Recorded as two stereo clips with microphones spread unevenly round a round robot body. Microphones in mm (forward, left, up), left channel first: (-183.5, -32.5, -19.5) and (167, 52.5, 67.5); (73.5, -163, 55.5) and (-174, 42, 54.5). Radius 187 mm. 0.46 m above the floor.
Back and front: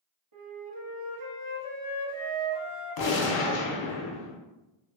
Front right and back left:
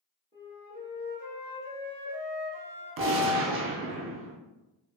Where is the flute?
35° left, 0.6 m.